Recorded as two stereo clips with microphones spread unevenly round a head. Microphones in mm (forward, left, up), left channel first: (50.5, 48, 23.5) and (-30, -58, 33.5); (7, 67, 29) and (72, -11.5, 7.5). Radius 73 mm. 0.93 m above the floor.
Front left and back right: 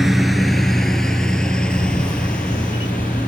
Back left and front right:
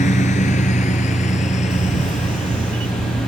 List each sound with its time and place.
0.0 s a lawn mower: 145° left; by 3.3 s 135° left
1.7 s a camera shutter: 10° right